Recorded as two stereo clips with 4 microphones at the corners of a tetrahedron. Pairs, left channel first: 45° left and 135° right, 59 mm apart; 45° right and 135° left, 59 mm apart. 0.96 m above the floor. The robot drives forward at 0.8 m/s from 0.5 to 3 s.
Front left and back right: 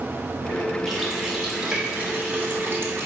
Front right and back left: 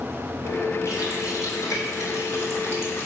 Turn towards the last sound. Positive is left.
turn(degrees=-90)